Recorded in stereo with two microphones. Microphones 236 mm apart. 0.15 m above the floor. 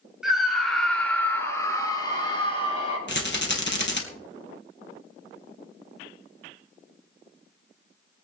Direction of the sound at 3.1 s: 50° left (ahead or behind).